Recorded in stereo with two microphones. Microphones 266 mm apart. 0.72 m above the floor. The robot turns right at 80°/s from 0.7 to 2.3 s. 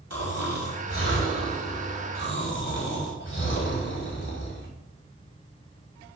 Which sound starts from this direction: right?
Snoring, at 0.1 s.